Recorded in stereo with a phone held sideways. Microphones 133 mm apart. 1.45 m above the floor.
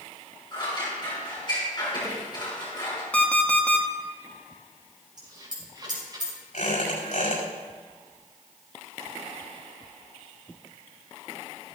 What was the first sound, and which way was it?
Scissors, 35° left (ahead or behind).